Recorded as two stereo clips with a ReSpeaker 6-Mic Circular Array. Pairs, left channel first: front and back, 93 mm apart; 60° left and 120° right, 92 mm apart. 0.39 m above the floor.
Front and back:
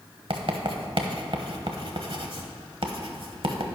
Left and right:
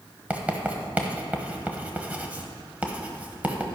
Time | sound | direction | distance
0.3 | writing | 165° left | 1.2 m